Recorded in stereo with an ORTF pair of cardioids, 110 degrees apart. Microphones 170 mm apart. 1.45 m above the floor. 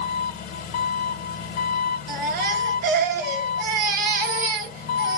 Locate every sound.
0.0 s an engine running: 70° left, 1.2 m
2.1 s a baby crying: 70° right, 1.6 m